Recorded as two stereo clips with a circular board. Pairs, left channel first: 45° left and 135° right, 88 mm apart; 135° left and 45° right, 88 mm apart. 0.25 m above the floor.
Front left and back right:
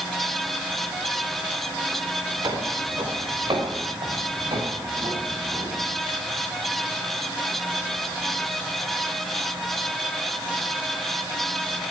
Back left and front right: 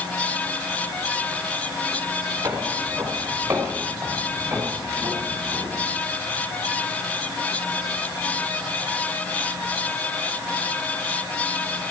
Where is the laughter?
I don't hear laughter.